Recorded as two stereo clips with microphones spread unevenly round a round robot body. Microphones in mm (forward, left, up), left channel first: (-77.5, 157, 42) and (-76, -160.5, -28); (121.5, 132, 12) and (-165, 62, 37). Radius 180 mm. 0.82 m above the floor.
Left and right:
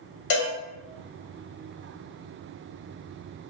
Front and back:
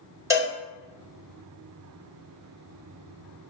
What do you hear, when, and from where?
0.3 s a cowbell: 115° left, 1.4 m